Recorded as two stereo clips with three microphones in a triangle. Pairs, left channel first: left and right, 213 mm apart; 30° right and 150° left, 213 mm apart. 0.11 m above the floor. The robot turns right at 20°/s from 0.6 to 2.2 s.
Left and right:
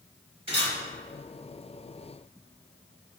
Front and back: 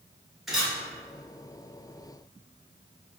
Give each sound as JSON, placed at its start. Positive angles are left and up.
{"t": 0.5, "sound": "a camera shutter", "azimuth_deg": -125, "distance_m": 1.4}